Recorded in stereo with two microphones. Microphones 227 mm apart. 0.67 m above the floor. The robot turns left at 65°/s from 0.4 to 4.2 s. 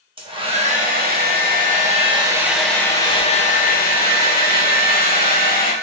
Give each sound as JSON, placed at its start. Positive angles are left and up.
{"t": 0.2, "sound": "a hair dryer", "azimuth_deg": -35, "distance_m": 0.8}